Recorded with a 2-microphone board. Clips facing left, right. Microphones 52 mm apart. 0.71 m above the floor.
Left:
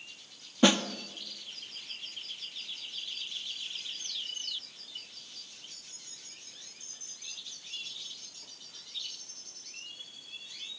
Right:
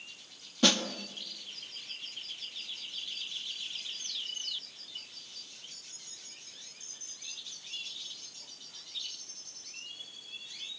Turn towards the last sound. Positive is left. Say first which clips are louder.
# left 4 dB
turn(degrees=20)  # may be behind; listen again after turning